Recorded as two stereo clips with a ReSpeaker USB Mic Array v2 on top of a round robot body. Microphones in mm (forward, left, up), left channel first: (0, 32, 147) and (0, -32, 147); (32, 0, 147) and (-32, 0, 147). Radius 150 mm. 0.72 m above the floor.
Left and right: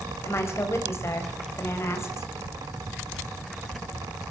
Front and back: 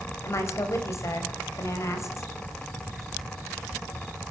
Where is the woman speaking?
45° left, 4.5 m.